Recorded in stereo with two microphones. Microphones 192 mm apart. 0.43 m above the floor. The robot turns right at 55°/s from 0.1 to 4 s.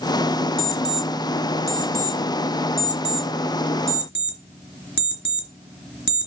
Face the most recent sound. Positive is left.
turn(degrees=65)  # may be behind; listen again after turning